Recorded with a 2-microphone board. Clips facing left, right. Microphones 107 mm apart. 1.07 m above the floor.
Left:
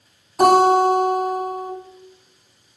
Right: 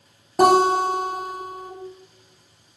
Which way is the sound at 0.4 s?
55° right (ahead or behind).